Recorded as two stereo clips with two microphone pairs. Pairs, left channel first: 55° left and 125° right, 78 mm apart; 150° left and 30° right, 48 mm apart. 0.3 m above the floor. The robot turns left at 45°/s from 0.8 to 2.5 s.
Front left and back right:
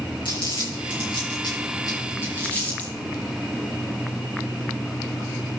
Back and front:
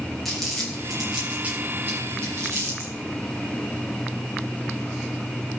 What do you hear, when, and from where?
0.2 s crumpling: 65° left, 5.5 m; by 2.9 s 10° right, 5.5 m